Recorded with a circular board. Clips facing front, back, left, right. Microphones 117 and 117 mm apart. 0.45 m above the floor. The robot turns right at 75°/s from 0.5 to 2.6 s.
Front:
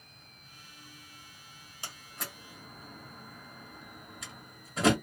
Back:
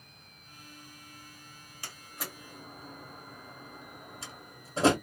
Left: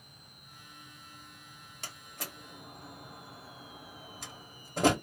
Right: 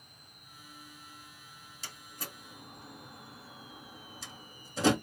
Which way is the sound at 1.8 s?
65° left.